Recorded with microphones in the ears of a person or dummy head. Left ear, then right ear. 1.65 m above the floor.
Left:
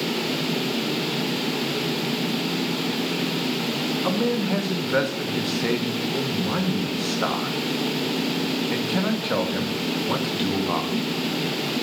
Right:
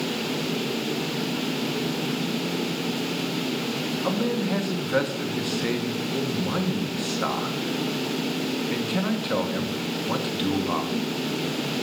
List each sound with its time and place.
4.0 s a man speaking: 10° left (ahead or behind), 1.3 m